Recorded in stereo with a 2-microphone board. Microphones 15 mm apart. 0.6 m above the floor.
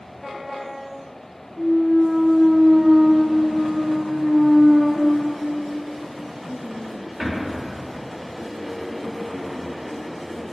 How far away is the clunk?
About 0.9 m.